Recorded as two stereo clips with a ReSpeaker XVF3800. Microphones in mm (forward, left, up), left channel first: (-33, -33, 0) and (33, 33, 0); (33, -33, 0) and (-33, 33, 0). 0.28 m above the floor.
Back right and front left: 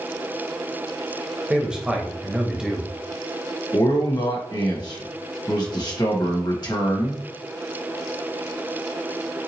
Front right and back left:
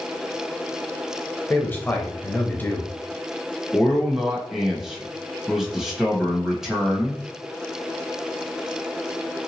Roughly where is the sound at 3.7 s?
Behind right.